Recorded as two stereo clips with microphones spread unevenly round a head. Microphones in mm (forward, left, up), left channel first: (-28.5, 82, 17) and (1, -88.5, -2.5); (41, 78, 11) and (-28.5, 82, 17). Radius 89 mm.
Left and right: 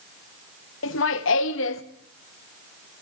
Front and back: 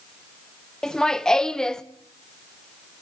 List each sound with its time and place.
0.8 s laughter: 75° left, 0.9 m